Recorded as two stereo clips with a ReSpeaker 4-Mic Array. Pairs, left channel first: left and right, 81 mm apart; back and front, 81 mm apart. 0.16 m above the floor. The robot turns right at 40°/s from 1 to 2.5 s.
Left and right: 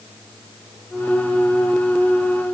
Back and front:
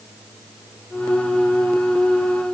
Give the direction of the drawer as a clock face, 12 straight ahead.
I don't hear a drawer.